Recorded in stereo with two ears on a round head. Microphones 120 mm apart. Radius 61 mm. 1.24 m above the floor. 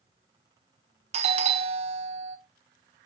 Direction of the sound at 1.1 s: 50° right (ahead or behind).